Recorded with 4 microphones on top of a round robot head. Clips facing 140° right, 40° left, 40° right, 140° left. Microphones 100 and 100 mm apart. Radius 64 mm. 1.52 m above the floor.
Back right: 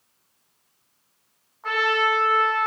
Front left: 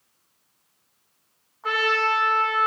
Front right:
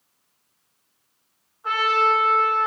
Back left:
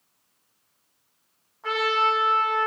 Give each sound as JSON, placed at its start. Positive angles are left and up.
{"t": 1.6, "sound": "a trumpet", "azimuth_deg": 125, "distance_m": 6.0}